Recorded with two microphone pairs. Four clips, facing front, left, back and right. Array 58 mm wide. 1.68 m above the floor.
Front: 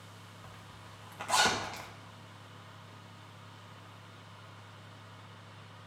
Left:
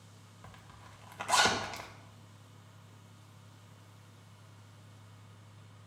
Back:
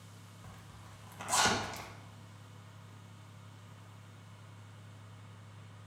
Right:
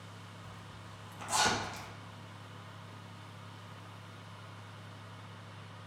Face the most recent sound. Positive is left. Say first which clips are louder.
# right 4 dB, front 2 dB
turn(degrees=70)